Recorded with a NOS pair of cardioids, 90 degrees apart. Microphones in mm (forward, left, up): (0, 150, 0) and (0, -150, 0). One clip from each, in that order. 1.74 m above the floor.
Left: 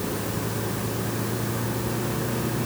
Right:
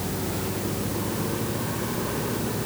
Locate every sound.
Only background noise.